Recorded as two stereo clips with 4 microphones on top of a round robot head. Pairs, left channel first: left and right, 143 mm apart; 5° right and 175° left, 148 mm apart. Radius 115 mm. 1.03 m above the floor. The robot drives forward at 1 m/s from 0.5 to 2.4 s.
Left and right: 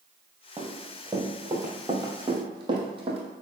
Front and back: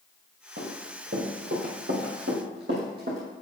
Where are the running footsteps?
155° right, 2.5 m; by 3.2 s 130° right, 1.9 m.